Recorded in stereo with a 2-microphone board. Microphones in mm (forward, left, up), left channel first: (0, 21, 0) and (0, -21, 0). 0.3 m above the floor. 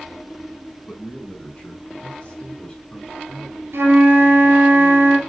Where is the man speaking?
40° left (ahead or behind), 3.5 m; by 3.6 s 15° left (ahead or behind), 3 m.